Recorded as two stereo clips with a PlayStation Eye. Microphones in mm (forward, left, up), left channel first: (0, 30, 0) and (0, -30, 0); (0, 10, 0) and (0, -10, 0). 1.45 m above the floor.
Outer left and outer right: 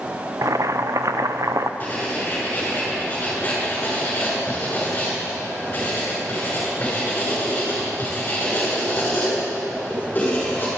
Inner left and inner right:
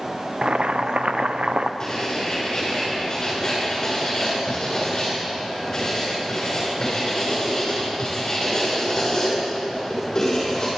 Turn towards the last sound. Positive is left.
turn(degrees=25)  # may be behind; listen again after turning